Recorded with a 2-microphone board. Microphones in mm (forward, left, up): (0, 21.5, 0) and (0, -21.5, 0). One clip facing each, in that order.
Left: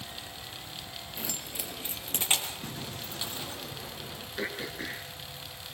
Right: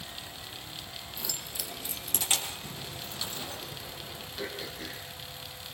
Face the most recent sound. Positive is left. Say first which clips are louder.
# left 4 dB
turn(degrees=40)  # may be behind; listen again after turning